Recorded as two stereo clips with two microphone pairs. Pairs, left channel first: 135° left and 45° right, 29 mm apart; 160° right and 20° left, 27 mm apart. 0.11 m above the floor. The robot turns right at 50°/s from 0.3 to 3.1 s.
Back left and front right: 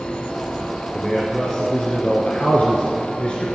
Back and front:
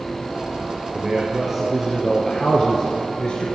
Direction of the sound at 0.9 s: 55° left.